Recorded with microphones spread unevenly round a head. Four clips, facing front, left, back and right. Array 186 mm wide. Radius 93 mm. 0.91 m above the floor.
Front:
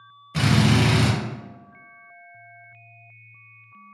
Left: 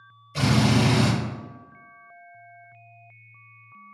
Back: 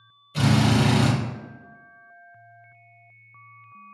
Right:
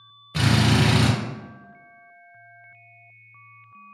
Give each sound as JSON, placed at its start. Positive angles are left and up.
{"t": 0.3, "sound": "a drill", "azimuth_deg": -55, "distance_m": 1.1}